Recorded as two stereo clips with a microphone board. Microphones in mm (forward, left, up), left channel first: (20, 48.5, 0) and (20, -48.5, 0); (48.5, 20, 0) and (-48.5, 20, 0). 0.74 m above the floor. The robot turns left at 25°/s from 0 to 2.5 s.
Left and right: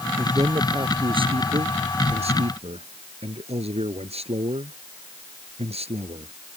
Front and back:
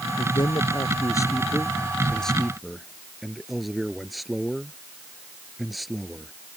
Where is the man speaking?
35° right; by 6.3 s 90° right.